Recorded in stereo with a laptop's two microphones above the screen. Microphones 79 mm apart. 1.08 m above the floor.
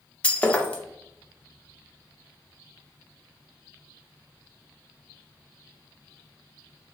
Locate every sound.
0.2 s breaking glass: 15° left (ahead or behind), 0.5 m